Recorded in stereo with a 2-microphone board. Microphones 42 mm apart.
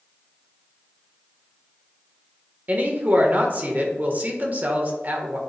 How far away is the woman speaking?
About 1.3 m.